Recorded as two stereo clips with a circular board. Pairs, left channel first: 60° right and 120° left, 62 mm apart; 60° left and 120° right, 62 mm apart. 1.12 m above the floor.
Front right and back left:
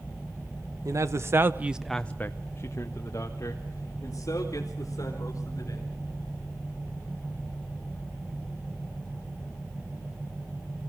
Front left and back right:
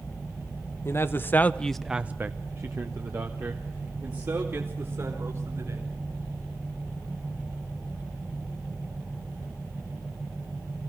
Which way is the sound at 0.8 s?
100° left.